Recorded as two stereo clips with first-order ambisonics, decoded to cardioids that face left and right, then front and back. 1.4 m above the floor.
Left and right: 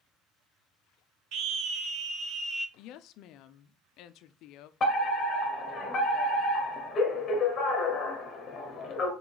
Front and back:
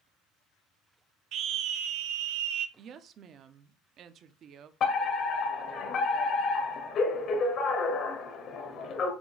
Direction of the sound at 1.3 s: 130° right.